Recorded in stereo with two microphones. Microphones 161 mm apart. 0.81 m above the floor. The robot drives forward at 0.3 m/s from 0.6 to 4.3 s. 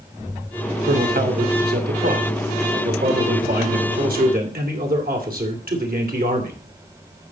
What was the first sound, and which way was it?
A man speaking, 75° right (ahead or behind).